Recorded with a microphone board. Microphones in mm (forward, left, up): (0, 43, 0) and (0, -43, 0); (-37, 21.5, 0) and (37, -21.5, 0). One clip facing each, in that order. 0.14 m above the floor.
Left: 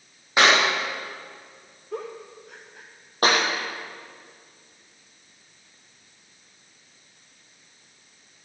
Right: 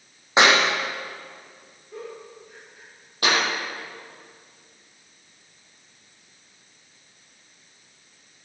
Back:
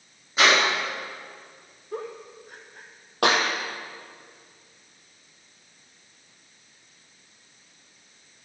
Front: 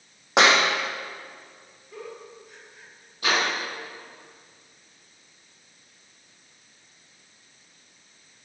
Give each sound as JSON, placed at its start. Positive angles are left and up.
{"t": 0.4, "sound": "a clap", "azimuth_deg": -25, "distance_m": 6.5}
{"t": 1.9, "sound": "a giggle", "azimuth_deg": 105, "distance_m": 4.0}
{"t": 3.2, "sound": "a clap", "azimuth_deg": 135, "distance_m": 4.5}